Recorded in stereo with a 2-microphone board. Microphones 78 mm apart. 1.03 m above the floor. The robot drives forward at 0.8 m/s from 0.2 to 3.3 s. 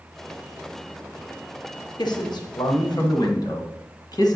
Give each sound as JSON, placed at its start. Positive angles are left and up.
{"t": 2.0, "sound": "a man speaking", "side_deg": 60, "distance_m": 1.3}